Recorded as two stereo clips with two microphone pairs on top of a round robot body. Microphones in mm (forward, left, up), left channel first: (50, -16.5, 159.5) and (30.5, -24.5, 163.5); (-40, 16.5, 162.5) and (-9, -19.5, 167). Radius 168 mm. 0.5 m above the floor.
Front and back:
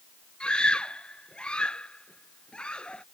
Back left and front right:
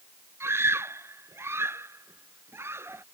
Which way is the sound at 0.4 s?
15° right.